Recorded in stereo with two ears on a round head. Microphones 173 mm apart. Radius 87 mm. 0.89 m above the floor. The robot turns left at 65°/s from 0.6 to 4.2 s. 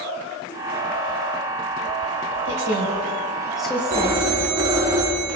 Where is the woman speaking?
75° right (ahead or behind), 4.5 m; by 4.2 s 40° left (ahead or behind), 4.5 m.